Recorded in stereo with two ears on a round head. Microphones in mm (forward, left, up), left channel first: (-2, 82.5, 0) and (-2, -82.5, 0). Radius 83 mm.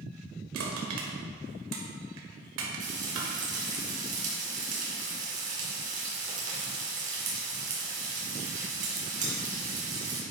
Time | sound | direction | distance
0.5 | crushing | 85° right | 1.9 m
2.8 | frying | 45° right (ahead or behind) | 3 m